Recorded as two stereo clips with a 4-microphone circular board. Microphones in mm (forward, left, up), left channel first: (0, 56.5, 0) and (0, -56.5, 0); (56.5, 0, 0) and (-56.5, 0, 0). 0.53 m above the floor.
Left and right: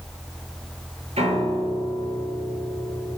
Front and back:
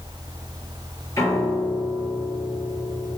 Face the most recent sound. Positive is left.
turn(degrees=-65)